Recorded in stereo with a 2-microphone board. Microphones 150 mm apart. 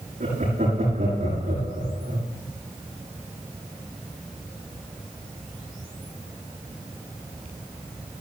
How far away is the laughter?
About 8.5 m.